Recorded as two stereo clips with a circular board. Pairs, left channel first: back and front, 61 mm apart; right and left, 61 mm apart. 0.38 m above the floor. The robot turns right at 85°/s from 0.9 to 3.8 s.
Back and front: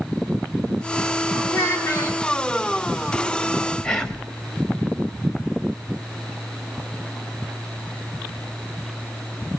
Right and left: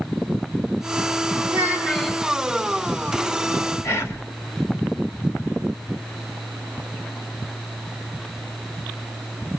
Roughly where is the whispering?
Right.